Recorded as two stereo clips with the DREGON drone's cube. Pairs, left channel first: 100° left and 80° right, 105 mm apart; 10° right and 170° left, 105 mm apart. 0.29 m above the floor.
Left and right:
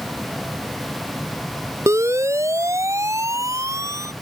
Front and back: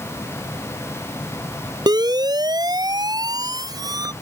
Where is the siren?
140° right.